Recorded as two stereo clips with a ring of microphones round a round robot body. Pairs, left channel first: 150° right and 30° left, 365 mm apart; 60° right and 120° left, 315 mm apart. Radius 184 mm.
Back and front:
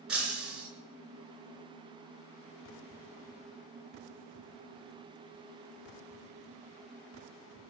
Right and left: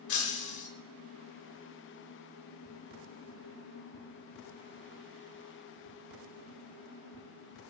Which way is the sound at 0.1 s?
60° right.